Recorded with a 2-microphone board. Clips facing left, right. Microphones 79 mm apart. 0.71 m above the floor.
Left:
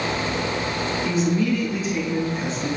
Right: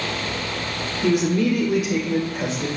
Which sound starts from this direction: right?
A woman speaking, at 1.0 s.